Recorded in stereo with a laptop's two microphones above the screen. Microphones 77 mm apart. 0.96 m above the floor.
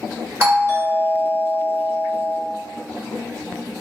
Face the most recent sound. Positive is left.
turn(degrees=-35)  # may be behind; listen again after turning